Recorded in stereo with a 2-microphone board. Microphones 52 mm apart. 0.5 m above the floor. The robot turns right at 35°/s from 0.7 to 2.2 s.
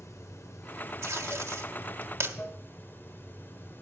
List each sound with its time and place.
0.0 s running water: 80° left, 0.7 m; by 3.8 s 130° left, 0.7 m
1.0 s tape being pulled: 65° right (ahead or behind), 1.2 m; by 2.4 s 50° right (ahead or behind), 1.2 m